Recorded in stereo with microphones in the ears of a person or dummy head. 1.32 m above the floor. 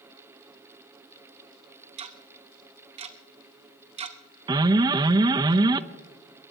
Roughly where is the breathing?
I don't hear breathing.